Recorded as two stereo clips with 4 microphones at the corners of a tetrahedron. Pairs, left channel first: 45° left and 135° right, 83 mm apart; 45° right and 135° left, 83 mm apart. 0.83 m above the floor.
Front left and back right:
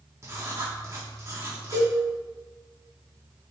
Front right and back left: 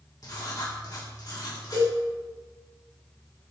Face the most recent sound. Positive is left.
turn(degrees=-5)